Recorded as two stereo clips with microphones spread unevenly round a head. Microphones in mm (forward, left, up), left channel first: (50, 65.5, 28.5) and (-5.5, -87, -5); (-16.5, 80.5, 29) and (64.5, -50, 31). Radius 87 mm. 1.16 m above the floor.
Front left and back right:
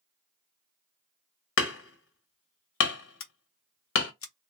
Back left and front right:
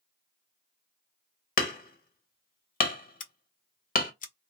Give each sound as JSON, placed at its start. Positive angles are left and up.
{"t": 1.6, "sound": "hammering", "azimuth_deg": 95, "distance_m": 1.6}
{"t": 3.2, "sound": "scissors", "azimuth_deg": 85, "distance_m": 0.8}